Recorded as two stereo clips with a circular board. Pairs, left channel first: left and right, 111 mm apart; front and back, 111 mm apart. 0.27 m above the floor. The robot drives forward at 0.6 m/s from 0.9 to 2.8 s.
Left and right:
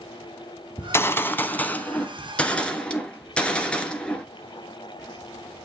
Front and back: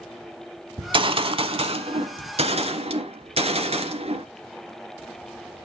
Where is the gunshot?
150° left, 0.8 m; by 4.2 s 170° left, 1.8 m.